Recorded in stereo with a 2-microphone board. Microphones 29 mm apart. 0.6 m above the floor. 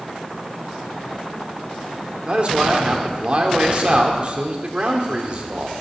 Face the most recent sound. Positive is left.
turn(degrees=-40)  # may be behind; listen again after turning